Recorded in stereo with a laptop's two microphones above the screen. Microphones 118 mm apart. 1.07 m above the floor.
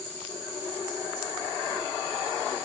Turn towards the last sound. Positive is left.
No sound to turn to.